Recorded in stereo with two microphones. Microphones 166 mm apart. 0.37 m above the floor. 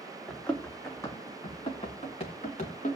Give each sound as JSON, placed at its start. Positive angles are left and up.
{"t": 0.3, "sound": "running footsteps", "side_deg": 0, "distance_m": 1.5}